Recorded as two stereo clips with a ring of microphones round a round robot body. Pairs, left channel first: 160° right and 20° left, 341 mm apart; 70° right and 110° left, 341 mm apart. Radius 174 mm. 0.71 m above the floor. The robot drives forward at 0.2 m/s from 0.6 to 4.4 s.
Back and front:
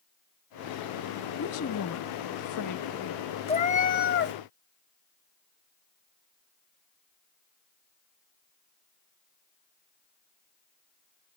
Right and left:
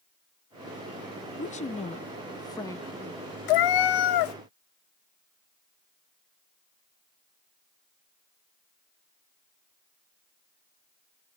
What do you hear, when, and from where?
1.4 s a woman speaking: 125° right, 0.6 m; by 3.2 s 150° right, 0.8 m
3.5 s a cat meowing: 85° right, 0.6 m; by 4.3 s 100° right, 0.6 m